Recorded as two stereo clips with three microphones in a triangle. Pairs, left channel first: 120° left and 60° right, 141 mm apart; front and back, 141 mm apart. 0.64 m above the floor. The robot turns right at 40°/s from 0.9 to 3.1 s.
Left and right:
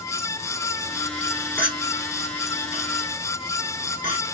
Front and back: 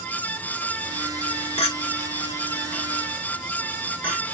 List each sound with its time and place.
1.6 s a clink: 40° left, 1.6 m; by 4.2 s 105° left, 1.6 m